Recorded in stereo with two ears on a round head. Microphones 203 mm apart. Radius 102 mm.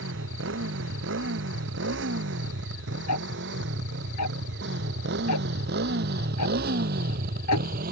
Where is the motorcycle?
60° right (ahead or behind); by 7.9 s 40° right (ahead or behind).